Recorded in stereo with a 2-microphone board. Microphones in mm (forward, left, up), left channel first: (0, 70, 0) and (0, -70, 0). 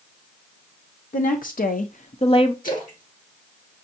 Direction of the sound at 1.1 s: 65° left (ahead or behind).